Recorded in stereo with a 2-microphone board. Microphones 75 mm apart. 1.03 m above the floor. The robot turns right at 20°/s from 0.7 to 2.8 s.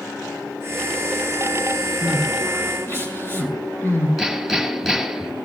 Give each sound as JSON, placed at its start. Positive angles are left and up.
{"t": 2.0, "sound": "crying", "side_deg": 45, "distance_m": 10.0}
{"t": 4.2, "sound": "hammering", "side_deg": 0, "distance_m": 9.5}